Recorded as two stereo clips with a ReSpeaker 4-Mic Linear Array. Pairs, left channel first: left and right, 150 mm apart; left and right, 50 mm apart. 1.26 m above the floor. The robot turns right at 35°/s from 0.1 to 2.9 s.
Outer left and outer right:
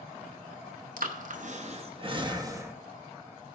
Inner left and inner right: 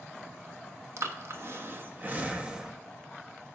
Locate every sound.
1.0 s breathing: 60° right (ahead or behind), 0.9 m; by 2.7 s 15° right (ahead or behind), 0.9 m